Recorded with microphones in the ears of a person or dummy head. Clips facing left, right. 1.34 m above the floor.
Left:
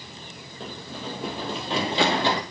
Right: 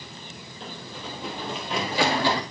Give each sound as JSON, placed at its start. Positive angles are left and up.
{"t": 0.6, "sound": "running footsteps", "side_deg": 35, "distance_m": 1.9}